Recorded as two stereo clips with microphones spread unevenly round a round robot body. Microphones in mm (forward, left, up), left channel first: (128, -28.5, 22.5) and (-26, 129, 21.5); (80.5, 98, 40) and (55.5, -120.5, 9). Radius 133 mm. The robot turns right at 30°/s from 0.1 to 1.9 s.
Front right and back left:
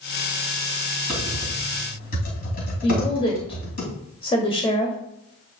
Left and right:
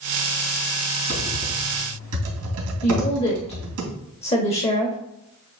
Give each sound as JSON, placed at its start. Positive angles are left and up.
{"t": 1.1, "sound": "typing on a keyboard", "azimuth_deg": -130, "distance_m": 2.5}
{"t": 2.8, "sound": "a woman speaking", "azimuth_deg": 20, "distance_m": 1.9}